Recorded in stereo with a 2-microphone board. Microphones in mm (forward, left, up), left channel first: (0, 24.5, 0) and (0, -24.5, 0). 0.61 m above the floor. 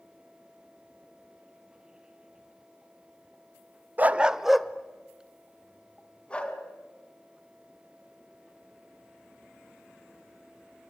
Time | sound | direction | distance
4.0 | a dog barking | 35° right (ahead or behind) | 0.6 m